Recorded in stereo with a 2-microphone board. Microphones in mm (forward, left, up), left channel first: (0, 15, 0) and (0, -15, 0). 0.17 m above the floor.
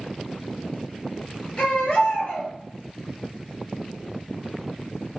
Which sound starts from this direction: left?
A baby crying, at 1.6 s.